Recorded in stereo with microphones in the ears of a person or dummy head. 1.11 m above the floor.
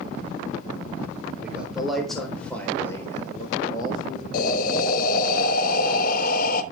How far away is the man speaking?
About 4 m.